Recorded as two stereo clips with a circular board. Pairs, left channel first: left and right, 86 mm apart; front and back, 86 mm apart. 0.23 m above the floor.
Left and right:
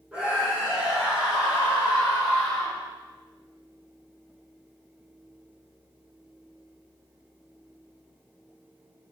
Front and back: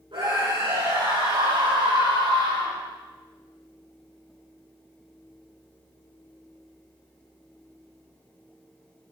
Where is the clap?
I don't hear a clap.